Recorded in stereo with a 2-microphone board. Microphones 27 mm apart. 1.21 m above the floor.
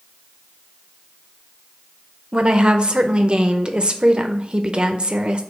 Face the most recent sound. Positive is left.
turn(degrees=-40)  # may be behind; listen again after turning